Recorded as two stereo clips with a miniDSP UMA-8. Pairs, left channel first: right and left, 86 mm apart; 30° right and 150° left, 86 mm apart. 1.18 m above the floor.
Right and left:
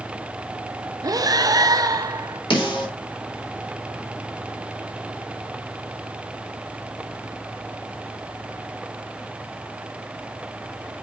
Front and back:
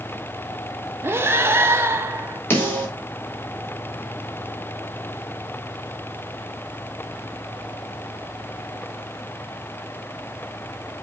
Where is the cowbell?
No cowbell in this recording.